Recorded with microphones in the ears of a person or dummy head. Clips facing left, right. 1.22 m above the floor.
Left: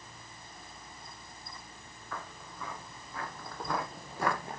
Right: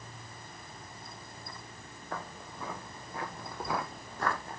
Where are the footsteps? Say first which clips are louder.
Right 3 dB; 30° right (ahead or behind), 2.5 m; by 4.6 s 20° left (ahead or behind), 1.3 m.